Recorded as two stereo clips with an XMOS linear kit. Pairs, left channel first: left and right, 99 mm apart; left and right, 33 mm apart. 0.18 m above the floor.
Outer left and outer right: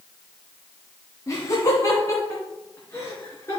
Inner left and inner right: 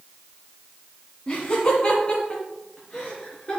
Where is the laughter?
35° left (ahead or behind), 1.7 m; by 3.6 s 30° left (ahead or behind), 3 m.